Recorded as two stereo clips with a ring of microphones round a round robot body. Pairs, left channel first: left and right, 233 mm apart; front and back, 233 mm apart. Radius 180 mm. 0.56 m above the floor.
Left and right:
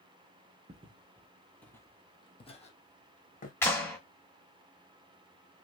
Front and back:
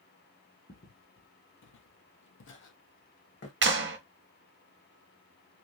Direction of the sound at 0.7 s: 40° right.